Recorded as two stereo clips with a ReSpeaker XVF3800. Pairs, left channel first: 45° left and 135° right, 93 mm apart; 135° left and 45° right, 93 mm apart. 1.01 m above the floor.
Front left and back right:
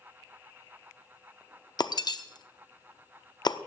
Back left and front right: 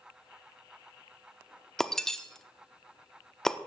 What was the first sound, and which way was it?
Breaking glass, 50° left.